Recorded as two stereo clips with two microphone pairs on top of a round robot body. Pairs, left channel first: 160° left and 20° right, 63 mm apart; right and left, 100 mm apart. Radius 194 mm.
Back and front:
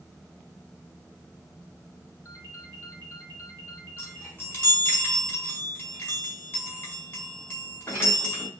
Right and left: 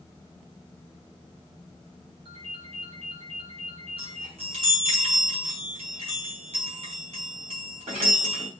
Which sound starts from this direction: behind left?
A ringtone, at 2.2 s.